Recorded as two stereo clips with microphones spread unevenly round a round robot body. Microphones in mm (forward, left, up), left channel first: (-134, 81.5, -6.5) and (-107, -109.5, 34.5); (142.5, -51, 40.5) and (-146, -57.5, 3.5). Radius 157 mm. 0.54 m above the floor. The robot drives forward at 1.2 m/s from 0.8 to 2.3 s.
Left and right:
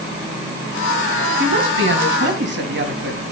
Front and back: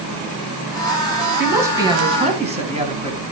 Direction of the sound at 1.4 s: 95° right.